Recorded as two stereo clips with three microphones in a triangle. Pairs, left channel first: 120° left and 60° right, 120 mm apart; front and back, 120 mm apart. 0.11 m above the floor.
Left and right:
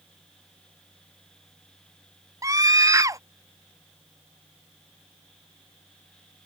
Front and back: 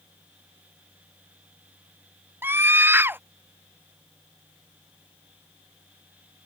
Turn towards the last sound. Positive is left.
turn(degrees=-115)